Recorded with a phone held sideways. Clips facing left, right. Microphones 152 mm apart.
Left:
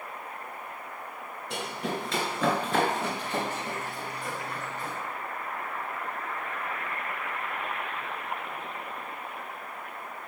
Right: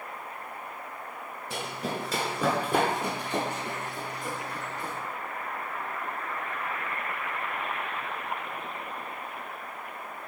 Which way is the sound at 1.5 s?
Centre (ahead or behind).